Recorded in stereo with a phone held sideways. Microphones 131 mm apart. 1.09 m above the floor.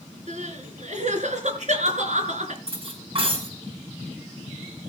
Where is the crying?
60° right (ahead or behind), 4 m.